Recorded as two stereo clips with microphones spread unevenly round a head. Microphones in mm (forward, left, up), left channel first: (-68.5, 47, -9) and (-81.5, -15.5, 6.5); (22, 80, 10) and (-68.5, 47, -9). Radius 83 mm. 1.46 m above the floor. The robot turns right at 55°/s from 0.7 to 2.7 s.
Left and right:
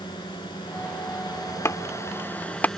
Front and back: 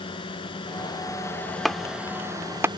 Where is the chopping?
85° left; by 2.7 s 145° left.